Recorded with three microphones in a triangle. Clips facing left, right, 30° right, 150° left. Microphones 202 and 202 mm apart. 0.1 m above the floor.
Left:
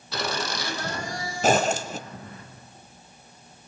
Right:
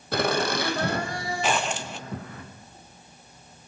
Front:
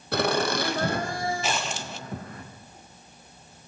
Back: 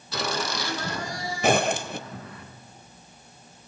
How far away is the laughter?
About 3.5 m.